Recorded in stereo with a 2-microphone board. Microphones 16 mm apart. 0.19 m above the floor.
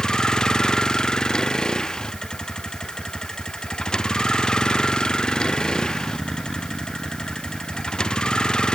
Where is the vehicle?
45° left (ahead or behind); by 8.8 s 55° left (ahead or behind).